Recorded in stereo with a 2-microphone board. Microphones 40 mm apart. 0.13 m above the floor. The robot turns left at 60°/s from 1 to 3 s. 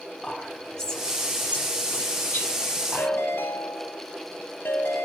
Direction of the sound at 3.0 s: 55° left (ahead or behind).